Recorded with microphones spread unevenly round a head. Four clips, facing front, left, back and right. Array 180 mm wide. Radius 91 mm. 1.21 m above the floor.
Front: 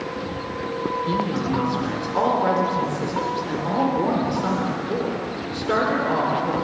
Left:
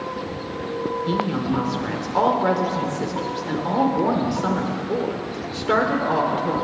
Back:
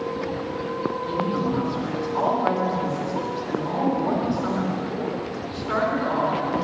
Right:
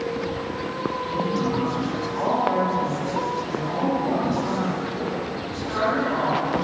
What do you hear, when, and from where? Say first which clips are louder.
1.1 s a woman speaking: left 1 dB, even; 70° left, 3.5 m